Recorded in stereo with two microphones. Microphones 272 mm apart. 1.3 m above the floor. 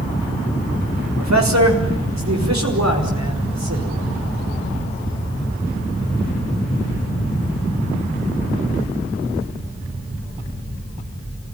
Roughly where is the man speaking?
Right.